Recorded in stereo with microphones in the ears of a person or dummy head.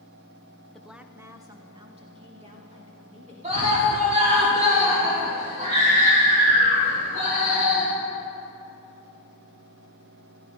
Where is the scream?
35° right (ahead or behind), 5.5 m.